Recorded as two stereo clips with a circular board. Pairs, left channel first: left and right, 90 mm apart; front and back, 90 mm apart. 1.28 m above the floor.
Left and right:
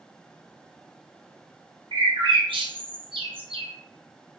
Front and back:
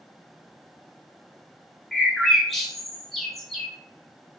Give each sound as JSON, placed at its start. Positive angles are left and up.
{"t": 1.9, "sound": "a bird", "azimuth_deg": -90, "distance_m": 0.7}